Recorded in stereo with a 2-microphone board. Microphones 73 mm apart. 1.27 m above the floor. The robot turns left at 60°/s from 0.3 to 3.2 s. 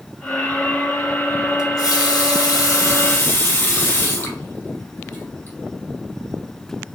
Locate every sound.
1.6 s a running tap: 130° left, 0.7 m; by 5.6 s 30° left, 0.7 m